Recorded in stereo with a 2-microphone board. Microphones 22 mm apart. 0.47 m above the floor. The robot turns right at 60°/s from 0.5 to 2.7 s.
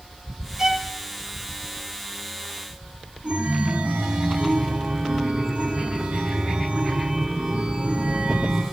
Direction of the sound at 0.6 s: 25° right (ahead or behind).